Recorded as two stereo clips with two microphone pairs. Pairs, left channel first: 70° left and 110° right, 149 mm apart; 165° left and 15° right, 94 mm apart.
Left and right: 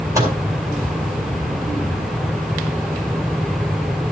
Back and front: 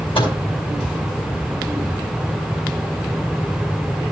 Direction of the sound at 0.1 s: Straight behind.